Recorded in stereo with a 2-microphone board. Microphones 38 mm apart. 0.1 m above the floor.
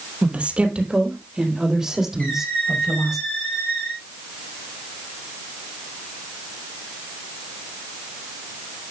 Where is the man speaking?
40° right (ahead or behind), 3 m; by 3.2 s 5° right (ahead or behind), 6 m.